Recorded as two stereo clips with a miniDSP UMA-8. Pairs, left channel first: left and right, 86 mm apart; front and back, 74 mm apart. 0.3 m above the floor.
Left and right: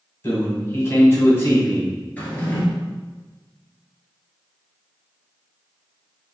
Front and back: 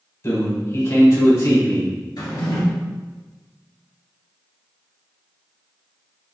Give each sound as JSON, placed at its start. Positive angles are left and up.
{"t": 0.2, "sound": "a man speaking", "azimuth_deg": 35, "distance_m": 1.6}
{"t": 2.2, "sound": "a drawer", "azimuth_deg": 20, "distance_m": 1.2}